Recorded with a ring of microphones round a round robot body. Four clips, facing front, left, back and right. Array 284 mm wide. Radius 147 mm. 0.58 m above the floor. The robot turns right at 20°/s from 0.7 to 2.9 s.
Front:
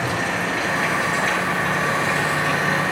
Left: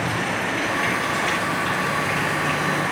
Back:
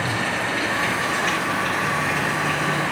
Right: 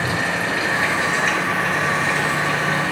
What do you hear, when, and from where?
0.0 s running water: 75° right, 5.5 m; by 2.9 s 30° right, 5.5 m